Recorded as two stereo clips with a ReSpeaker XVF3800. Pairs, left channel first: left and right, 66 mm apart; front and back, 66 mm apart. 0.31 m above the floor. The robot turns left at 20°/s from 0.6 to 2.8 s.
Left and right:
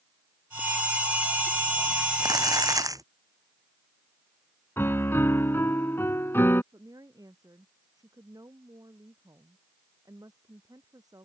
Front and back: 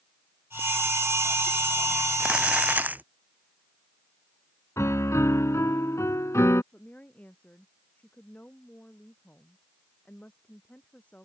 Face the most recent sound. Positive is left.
turn(degrees=-70)